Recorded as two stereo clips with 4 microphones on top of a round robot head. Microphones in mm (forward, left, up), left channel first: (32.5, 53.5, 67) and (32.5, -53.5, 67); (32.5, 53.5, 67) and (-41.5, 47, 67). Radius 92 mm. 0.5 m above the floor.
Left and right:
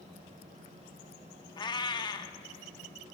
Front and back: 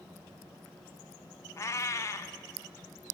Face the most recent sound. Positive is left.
turn(degrees=50)